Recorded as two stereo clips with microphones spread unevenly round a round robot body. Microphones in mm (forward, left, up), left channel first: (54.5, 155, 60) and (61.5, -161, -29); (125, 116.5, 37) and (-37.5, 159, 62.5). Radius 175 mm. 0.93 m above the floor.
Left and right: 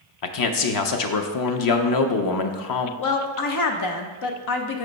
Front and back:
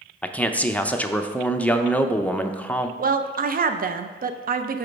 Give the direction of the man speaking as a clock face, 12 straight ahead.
10 o'clock.